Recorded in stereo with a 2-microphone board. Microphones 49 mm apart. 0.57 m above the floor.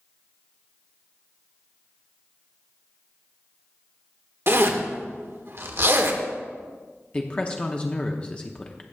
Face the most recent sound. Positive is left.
turn(degrees=25)  # may be behind; listen again after turning